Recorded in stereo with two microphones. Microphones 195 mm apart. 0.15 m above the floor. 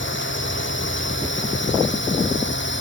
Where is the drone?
80° left; by 2.8 s 75° left (ahead or behind).